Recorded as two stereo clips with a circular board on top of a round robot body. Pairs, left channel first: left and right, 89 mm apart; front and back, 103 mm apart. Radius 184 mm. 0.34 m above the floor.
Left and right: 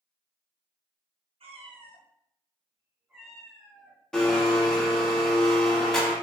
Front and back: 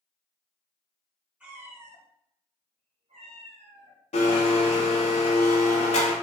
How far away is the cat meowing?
About 0.9 m.